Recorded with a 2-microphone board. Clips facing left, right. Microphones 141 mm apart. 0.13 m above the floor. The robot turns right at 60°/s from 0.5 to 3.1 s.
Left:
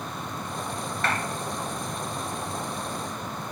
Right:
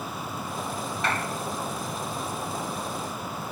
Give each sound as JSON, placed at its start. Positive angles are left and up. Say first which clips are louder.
{"t": 1.0, "sound": "a clap", "louder": "left 1 dB", "side_deg": -15, "distance_m": 2.0}